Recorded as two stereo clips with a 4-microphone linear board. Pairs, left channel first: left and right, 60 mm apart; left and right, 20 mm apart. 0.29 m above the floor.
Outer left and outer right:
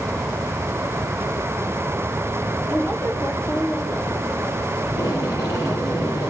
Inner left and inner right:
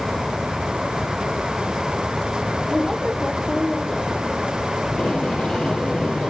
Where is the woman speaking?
40° left (ahead or behind), 1.7 m; by 4.3 s 30° left (ahead or behind), 2.5 m.